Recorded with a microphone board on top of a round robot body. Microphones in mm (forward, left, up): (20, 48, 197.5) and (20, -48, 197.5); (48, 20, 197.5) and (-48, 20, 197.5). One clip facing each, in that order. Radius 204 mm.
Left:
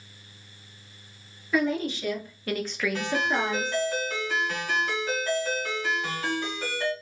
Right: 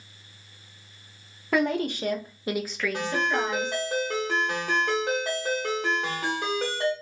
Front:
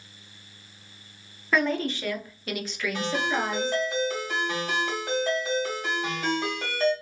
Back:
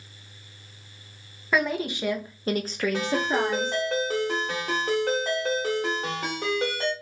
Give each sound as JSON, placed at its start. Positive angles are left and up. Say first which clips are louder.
{"t": 1.5, "sound": "a woman speaking", "louder": "right 1 dB, even", "azimuth_deg": -95, "distance_m": 1.1}
{"t": 2.9, "sound": "a ringtone", "louder": "right 1 dB, back 1 dB", "azimuth_deg": -130, "distance_m": 1.3}